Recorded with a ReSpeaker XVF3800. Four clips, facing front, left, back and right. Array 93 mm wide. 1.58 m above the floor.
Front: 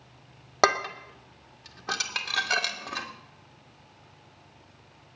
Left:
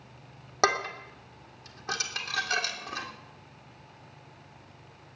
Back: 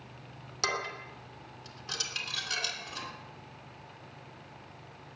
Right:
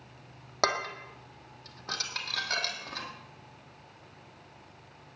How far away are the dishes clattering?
About 2 m.